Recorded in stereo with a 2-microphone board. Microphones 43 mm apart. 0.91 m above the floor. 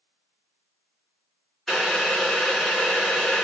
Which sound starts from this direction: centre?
Boiling, at 1.7 s.